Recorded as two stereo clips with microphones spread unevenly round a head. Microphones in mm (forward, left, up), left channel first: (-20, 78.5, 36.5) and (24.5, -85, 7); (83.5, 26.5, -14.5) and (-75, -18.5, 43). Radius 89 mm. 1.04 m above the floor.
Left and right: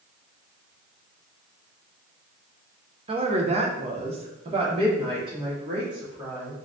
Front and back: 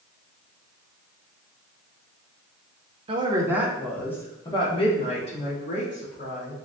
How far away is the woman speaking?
About 0.7 m.